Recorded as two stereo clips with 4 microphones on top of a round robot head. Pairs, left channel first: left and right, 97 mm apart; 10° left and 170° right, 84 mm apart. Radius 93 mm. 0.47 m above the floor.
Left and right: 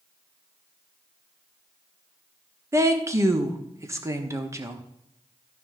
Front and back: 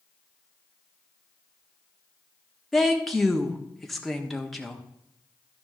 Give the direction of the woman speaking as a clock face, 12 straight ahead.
3 o'clock.